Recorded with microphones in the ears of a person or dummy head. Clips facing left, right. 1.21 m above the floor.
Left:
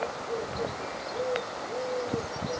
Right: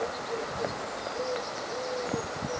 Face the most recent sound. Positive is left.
No sound to turn to.